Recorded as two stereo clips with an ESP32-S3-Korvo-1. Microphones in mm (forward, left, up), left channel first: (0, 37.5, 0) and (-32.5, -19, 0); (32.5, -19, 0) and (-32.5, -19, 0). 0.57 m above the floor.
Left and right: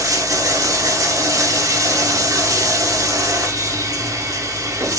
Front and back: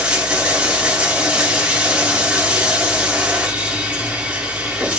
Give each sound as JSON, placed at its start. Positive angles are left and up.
{"t": 0.0, "sound": "running water", "azimuth_deg": -115, "distance_m": 0.8}